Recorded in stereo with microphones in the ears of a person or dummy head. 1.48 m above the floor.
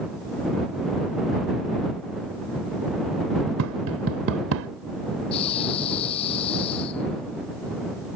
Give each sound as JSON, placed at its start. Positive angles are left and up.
{"t": 3.6, "sound": "tapping", "side_deg": -80}
{"t": 5.3, "sound": "breathing", "side_deg": 40}